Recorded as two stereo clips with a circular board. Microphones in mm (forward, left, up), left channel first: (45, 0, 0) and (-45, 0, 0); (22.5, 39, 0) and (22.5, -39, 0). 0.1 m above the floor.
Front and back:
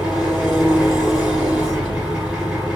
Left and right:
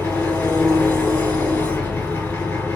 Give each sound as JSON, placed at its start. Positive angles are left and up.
{"t": 0.0, "sound": "an engine running", "azimuth_deg": 110, "distance_m": 1.2}